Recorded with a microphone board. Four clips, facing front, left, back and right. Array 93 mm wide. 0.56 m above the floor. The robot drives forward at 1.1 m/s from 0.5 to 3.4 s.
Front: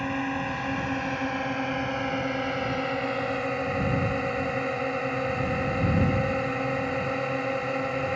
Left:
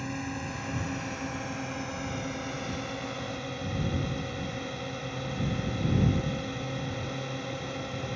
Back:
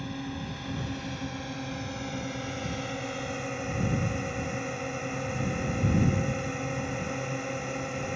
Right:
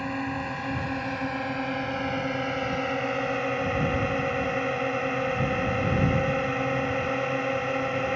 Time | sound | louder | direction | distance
0.0 | a drone | right 5 dB, front 8 dB | 35° right | ?